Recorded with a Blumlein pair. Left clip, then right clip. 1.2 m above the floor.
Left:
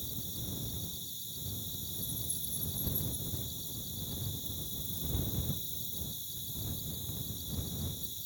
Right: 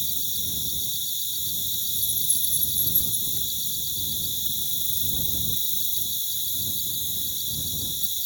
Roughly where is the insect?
Ahead right.